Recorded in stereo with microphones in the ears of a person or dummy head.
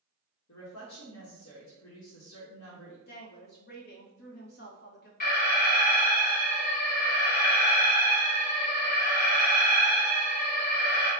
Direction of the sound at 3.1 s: 50° left (ahead or behind).